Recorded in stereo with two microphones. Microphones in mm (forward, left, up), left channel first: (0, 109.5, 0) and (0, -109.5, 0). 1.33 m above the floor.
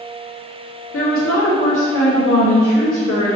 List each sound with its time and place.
0.9 s a woman speaking: 75° left (ahead or behind), 0.7 m